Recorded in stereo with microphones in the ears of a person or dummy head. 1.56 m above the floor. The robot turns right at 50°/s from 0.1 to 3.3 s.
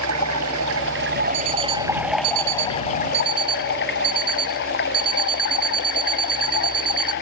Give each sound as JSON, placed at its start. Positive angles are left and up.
{"t": 0.0, "sound": "running water", "azimuth_deg": -105}
{"t": 1.3, "sound": "an alarm clock", "azimuth_deg": -125}